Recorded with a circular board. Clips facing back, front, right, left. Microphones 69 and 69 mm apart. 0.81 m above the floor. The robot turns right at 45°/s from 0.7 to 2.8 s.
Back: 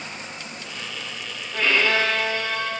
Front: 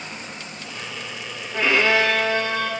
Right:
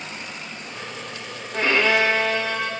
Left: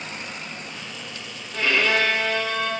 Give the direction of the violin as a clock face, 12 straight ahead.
2 o'clock.